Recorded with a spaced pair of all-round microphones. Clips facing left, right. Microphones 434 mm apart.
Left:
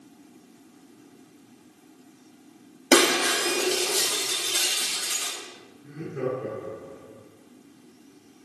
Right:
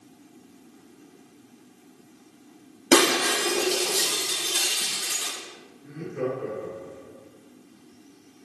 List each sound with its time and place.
2.9 s breaking glass: 5° right (ahead or behind), 4 m
5.8 s laughter: 15° right (ahead or behind), 4.5 m